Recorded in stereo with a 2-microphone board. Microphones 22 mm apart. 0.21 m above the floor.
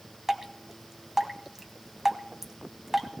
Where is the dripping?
15° right (ahead or behind), 1.2 m.